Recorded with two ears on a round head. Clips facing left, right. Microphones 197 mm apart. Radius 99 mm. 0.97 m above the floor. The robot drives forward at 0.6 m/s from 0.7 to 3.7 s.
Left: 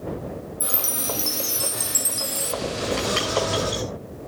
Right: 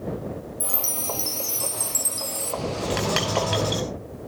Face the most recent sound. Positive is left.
turn(degrees=-65)  # may be behind; listen again after turning